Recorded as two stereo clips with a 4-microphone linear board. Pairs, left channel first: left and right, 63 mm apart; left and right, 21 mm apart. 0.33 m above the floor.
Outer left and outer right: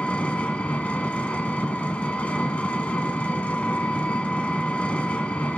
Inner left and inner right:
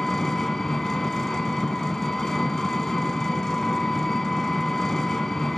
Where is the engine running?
20° left (ahead or behind), 0.7 m.